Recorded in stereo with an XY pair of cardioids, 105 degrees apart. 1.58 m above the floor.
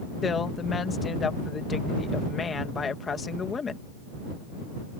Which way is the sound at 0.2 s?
40° left.